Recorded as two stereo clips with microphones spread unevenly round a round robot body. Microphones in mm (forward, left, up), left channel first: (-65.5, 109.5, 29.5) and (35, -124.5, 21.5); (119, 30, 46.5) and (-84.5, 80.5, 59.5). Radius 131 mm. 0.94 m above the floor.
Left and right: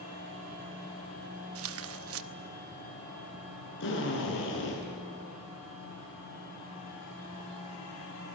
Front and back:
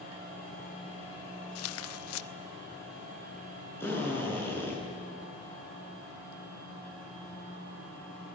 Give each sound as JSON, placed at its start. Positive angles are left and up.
{"t": 1.6, "sound": "tearing paper", "azimuth_deg": -25, "distance_m": 0.7}
{"t": 3.8, "sound": "a drill", "azimuth_deg": 65, "distance_m": 8.5}